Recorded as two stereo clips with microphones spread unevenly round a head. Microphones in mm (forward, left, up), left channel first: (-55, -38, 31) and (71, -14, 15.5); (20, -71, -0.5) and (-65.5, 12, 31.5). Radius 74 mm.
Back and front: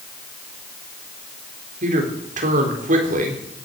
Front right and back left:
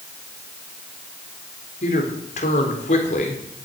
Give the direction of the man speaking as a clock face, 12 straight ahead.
12 o'clock.